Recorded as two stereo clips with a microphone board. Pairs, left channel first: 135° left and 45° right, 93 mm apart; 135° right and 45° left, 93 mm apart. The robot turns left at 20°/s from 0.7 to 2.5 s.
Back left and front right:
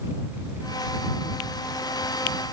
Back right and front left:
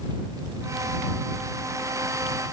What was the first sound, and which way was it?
Only background noise.